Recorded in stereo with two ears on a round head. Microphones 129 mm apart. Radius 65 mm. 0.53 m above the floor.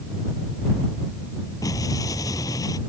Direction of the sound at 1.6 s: 25° left (ahead or behind).